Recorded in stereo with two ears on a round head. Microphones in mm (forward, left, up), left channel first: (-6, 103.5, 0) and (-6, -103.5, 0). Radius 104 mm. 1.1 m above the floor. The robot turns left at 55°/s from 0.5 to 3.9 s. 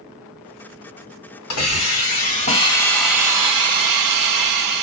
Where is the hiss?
85° left, 1.8 m; by 4.8 s 50° right, 1.8 m.